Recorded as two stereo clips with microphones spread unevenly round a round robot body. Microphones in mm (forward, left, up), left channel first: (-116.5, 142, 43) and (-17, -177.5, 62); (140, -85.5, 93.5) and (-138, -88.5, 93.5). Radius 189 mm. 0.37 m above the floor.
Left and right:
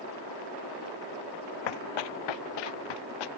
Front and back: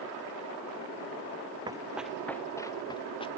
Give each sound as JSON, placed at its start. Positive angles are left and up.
{"t": 1.7, "sound": "running footsteps", "azimuth_deg": 100}